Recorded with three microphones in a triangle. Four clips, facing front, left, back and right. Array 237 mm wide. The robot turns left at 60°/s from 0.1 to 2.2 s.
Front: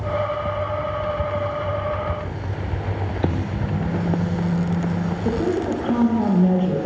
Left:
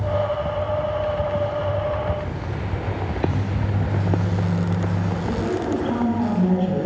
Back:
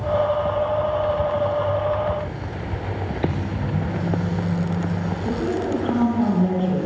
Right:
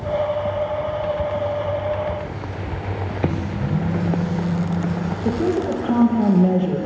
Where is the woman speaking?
60° right, 3.5 m.